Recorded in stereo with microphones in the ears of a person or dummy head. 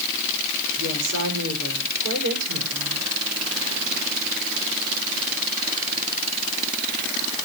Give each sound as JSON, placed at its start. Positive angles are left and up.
{"t": 0.8, "sound": "a woman speaking", "side_deg": -75, "distance_m": 6.0}